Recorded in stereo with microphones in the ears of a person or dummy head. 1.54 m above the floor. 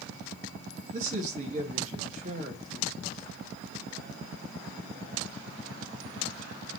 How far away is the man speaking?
About 2.5 m.